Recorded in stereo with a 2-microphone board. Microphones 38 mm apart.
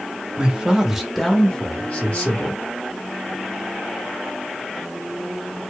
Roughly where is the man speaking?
Right.